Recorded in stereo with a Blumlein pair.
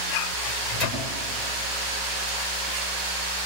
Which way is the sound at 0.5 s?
20° left.